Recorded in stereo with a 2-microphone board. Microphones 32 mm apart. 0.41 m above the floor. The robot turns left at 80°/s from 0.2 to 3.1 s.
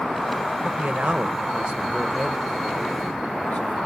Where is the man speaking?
65° right, 1.2 m; by 3.8 s 100° left, 1.2 m.